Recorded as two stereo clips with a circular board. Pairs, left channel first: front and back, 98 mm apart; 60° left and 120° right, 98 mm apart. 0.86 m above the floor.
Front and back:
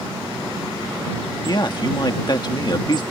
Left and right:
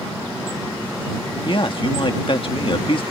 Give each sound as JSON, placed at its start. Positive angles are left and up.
{"t": 1.4, "sound": "a man speaking", "azimuth_deg": 40}